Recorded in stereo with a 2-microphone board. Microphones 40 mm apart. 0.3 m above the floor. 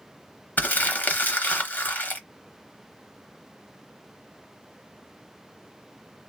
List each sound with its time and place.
0.6 s crumpling: 50° left (ahead or behind), 0.8 m